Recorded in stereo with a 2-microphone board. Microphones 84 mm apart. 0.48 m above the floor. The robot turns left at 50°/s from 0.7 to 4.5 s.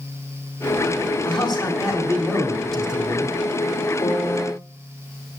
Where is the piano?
45° left (ahead or behind), 1.8 m.